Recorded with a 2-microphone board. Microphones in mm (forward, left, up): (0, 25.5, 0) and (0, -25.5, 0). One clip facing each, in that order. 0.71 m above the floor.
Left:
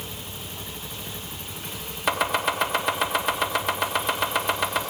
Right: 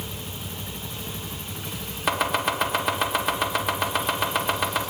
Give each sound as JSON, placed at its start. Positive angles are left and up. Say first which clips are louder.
{"t": 2.1, "sound": "chopping", "louder": "even", "side_deg": 0, "distance_m": 1.7}